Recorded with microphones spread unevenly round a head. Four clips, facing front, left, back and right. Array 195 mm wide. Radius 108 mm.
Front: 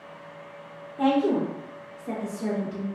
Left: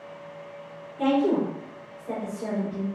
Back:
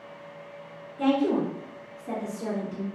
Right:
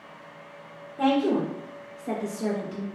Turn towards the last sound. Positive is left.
turn(degrees=-80)